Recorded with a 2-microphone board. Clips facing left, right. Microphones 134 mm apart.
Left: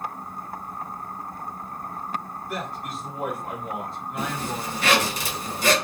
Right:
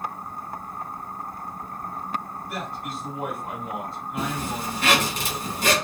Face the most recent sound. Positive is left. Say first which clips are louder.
# right 1 dB
turn(degrees=-50)  # may be behind; listen again after turning